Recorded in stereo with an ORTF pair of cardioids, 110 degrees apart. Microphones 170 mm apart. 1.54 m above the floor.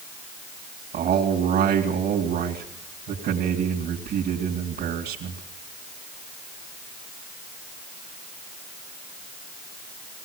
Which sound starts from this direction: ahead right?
A man speaking, at 0.9 s.